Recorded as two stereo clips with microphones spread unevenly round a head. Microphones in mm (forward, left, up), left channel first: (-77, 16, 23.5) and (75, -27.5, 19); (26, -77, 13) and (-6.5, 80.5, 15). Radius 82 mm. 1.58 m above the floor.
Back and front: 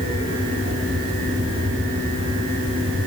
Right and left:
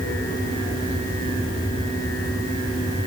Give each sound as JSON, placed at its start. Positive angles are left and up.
{"t": 0.0, "sound": "a fan", "azimuth_deg": -45, "distance_m": 6.5}